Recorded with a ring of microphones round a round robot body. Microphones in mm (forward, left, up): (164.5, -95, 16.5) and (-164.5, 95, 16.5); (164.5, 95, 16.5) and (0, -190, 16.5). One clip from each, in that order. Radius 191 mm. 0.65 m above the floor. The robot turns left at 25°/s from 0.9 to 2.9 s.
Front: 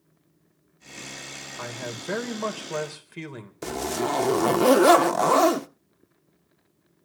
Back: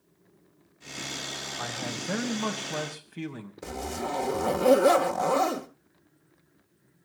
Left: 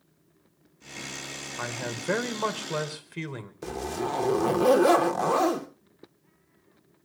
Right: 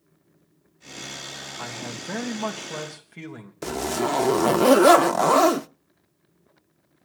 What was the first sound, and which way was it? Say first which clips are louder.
A man speaking: front 2 dB, left 3 dB; 45° left.